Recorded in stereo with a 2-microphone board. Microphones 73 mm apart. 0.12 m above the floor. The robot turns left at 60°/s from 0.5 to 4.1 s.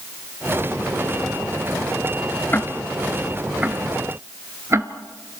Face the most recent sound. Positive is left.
turn(degrees=-35)  # may be behind; listen again after turning